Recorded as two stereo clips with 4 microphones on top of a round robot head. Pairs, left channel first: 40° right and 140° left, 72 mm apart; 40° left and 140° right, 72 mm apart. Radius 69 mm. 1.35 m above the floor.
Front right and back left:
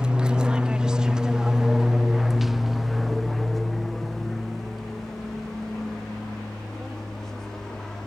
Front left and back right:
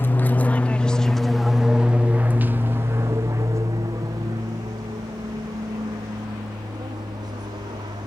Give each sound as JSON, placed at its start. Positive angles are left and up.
{"t": 0.0, "sound": "an aircraft", "azimuth_deg": 75}